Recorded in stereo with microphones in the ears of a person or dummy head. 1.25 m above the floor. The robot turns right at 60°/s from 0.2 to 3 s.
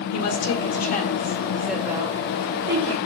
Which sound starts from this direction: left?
A woman speaking, at 0.1 s.